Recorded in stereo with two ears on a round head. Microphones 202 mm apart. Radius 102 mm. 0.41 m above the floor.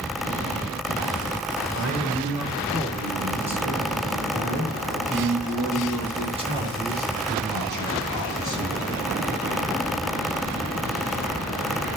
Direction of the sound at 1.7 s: Centre (ahead or behind).